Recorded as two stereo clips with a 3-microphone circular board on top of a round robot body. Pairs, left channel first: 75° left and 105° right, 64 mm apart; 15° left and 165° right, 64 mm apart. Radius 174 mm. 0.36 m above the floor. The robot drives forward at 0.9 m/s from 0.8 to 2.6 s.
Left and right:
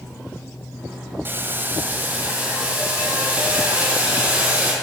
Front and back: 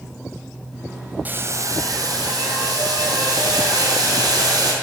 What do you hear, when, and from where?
1.2 s boiling: 125° right, 0.6 m; by 4.7 s 170° right, 1.5 m